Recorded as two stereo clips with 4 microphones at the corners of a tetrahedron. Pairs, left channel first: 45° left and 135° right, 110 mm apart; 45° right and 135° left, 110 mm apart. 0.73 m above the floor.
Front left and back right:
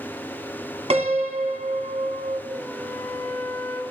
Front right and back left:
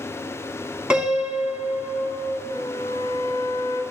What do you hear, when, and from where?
0.9 s a piano: 145° right, 1.8 m
2.5 s a flute: 10° right, 1.6 m